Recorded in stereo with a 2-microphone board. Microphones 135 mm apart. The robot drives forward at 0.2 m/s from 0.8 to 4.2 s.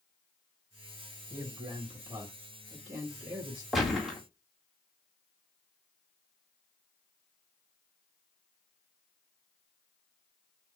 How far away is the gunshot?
About 1.4 m.